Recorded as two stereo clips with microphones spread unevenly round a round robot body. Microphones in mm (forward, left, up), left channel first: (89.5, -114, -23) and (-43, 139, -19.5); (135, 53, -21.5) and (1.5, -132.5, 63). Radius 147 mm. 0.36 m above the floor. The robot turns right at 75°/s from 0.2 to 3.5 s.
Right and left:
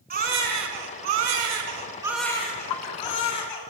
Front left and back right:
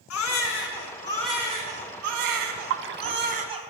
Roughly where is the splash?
Right.